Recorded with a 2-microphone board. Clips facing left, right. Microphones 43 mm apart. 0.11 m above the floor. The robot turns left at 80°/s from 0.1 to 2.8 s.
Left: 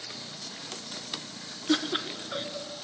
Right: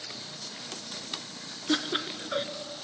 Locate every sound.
1.7 s laughter: centre (ahead or behind), 1.4 m; by 2.5 s 15° right (ahead or behind), 1.4 m